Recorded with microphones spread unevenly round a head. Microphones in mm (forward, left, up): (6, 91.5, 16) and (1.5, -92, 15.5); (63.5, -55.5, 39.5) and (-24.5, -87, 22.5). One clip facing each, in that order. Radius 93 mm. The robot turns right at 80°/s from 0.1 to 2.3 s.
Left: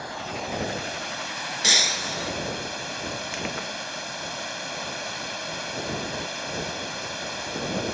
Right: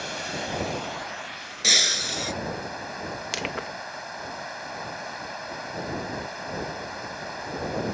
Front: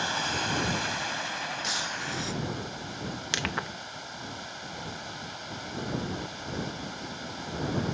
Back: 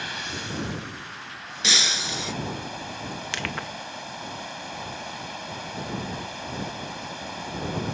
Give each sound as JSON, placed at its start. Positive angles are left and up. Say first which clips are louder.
{"t": 0.0, "sound": "running water", "louder": "even, front 4 dB", "azimuth_deg": -40}
{"t": 1.6, "sound": "breaking glass", "louder": "even, back 4 dB", "azimuth_deg": 170}
{"t": 3.3, "sound": "crushing", "louder": "even, front 1 dB", "azimuth_deg": -55}